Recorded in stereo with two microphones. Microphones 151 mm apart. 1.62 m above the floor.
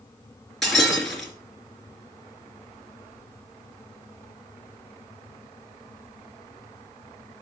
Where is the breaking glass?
Centre (ahead or behind), 3.5 m.